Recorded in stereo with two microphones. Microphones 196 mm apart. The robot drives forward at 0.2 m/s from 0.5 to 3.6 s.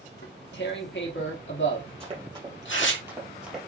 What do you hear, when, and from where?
0.2 s tearing paper: 65° left (ahead or behind), 1.4 m; by 3.0 s 80° left, 1.3 m
2.0 s running footsteps: 30° right (ahead or behind), 2 m; by 3.6 s centre (ahead or behind), 1.9 m